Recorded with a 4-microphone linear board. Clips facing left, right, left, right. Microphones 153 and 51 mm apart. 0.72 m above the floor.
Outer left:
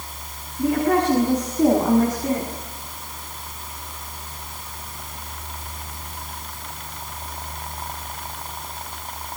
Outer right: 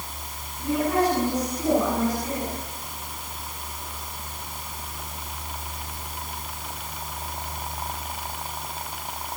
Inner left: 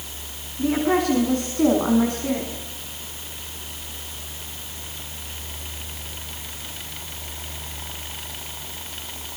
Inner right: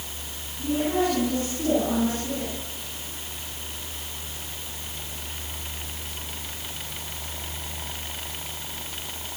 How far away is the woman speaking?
About 8 m.